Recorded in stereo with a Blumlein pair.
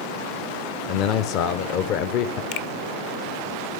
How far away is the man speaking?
About 0.9 m.